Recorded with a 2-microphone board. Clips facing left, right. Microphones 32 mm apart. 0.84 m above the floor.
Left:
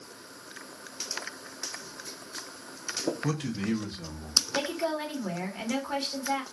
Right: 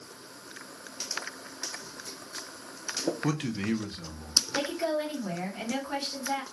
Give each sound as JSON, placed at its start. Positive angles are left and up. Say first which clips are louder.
{"t": 3.2, "sound": "a man speaking", "louder": "right 1 dB", "side_deg": -35, "distance_m": 0.8}
{"t": 4.5, "sound": "a woman speaking", "louder": "right 1 dB", "side_deg": 10, "distance_m": 1.3}